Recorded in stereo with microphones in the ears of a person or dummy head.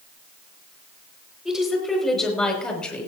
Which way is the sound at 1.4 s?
Centre (ahead or behind).